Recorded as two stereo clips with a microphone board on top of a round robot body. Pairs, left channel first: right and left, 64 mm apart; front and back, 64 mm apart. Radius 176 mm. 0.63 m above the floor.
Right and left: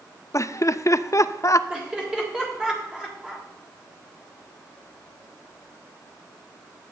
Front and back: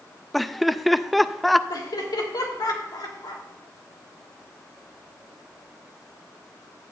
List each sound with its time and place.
0.3 s laughter: 90° right, 0.7 m
1.7 s laughter: 10° left, 3 m